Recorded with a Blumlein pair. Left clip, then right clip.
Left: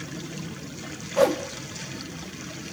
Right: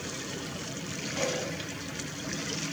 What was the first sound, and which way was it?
A whoosh, 55° left.